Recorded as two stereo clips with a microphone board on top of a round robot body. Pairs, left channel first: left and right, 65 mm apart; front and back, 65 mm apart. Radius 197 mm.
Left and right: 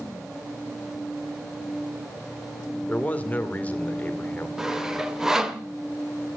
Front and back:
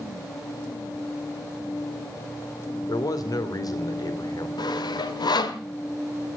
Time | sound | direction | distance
2.9 | a man speaking | 25° left | 2.5 m
4.6 | sawing | 5° right | 1.5 m